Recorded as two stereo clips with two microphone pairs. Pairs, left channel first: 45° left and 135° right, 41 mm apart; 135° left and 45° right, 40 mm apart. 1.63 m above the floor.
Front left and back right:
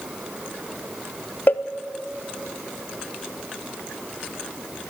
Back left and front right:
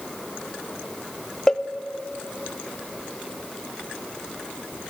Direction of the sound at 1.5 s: 65° left.